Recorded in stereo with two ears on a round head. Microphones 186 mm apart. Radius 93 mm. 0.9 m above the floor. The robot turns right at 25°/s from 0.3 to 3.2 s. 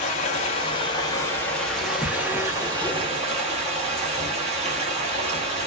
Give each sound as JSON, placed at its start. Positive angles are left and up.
{"t": 0.0, "sound": "running water", "azimuth_deg": 145, "distance_m": 1.0}